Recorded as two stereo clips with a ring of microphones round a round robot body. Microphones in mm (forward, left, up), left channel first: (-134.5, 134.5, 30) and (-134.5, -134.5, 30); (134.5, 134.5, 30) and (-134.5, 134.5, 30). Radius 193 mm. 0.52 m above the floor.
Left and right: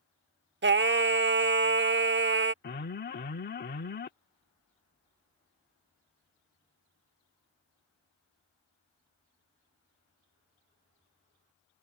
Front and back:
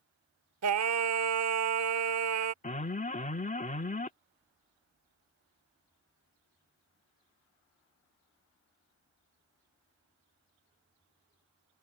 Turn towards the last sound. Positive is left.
turn(degrees=50)